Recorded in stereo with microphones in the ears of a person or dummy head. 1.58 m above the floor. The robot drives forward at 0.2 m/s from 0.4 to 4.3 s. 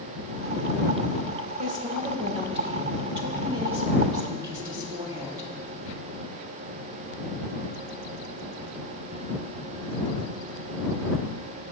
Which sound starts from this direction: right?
A woman speaking, at 1.6 s.